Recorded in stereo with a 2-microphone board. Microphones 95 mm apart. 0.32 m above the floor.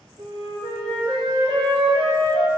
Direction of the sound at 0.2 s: 65° right (ahead or behind).